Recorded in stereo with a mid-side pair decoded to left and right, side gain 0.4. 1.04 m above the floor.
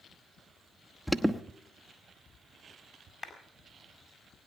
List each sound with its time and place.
1.1 s an alarm: straight ahead, 1.1 m
3.2 s a clap: 40° left, 4.5 m